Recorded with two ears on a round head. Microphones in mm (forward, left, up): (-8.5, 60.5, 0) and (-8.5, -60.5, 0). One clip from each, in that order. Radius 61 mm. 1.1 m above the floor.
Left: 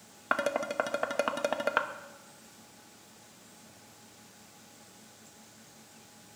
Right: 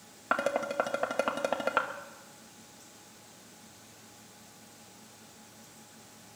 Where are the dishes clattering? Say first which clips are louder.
Even; 15° left (ahead or behind), 0.8 m.